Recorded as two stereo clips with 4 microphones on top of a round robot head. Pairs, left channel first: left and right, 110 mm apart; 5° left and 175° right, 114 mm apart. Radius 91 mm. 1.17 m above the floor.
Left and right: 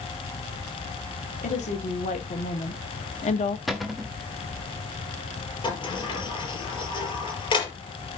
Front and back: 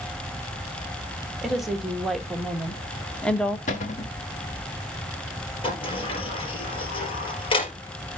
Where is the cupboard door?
Straight ahead, 1.2 m.